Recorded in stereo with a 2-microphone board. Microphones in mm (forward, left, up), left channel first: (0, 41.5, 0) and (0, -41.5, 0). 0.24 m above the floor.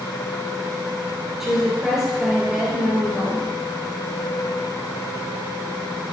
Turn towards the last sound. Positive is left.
turn(degrees=-5)  # may be behind; listen again after turning